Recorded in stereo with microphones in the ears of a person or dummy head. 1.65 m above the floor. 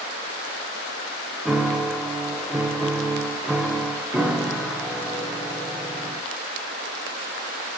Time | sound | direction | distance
1.4 | a piano | 5° left (ahead or behind) | 1.0 m